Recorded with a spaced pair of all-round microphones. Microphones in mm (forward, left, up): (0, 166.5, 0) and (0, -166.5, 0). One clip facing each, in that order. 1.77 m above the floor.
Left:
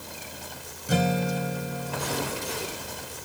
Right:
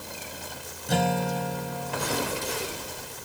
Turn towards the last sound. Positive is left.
turn(degrees=5)  # may be behind; listen again after turning